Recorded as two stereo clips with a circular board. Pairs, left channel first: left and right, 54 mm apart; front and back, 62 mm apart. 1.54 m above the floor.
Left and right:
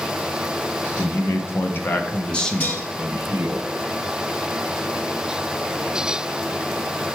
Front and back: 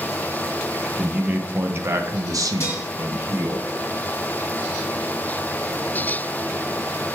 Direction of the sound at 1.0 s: 110° left.